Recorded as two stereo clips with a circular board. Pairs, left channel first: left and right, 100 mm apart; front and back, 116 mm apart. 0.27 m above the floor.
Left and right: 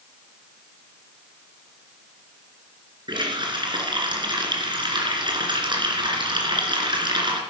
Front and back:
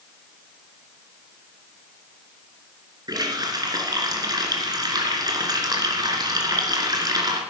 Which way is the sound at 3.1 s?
125° right.